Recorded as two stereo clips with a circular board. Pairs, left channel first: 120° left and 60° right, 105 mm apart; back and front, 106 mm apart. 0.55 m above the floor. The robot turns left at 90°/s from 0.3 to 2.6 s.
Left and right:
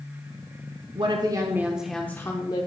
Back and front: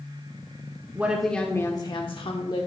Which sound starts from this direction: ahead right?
A woman speaking, at 0.9 s.